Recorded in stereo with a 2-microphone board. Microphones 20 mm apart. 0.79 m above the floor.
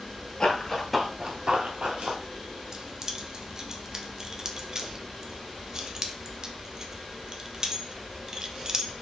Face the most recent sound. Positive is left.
turn(degrees=-30)  # may be behind; listen again after turning